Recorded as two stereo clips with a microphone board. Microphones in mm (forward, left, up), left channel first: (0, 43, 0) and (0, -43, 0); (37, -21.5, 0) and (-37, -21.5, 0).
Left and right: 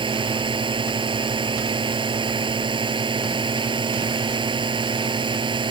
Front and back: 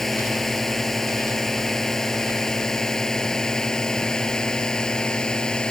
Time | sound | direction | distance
0.0 | a drone | 85° right | ?